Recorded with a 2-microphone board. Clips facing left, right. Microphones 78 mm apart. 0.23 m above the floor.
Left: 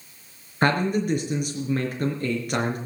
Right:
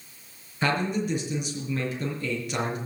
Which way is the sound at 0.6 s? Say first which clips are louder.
Left 4 dB; 50° left (ahead or behind).